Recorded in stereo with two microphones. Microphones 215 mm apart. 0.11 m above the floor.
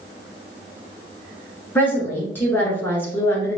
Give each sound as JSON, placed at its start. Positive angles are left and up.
{"t": 1.8, "sound": "a woman speaking", "side_deg": 10, "distance_m": 1.3}